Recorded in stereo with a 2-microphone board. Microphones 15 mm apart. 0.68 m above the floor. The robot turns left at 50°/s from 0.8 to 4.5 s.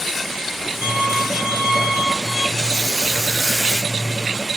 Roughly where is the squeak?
Behind right.